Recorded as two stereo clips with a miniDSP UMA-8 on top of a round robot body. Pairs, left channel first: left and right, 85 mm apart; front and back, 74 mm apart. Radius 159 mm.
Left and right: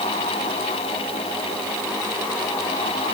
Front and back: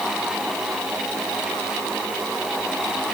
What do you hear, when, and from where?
Only background noise.